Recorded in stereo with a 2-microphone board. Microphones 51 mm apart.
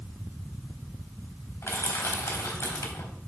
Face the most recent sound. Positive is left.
turn(degrees=70)  # may be behind; listen again after turning